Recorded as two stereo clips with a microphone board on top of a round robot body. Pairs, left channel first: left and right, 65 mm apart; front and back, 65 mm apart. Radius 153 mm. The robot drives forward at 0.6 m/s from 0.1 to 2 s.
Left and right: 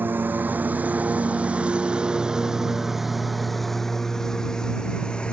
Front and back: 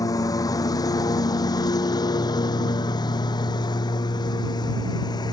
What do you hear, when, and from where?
0.0 s a lawn mower: 30° right; by 5.3 s 15° left